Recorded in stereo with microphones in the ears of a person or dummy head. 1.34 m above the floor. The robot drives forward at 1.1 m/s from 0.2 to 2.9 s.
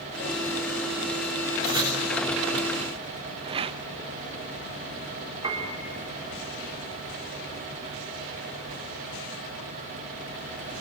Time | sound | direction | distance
1.6 | writing | 25° right (ahead or behind) | 7 m
3.4 | a rattle | 30° right (ahead or behind) | 0.8 m
5.4 | a piano | 30° right (ahead or behind) | 3 m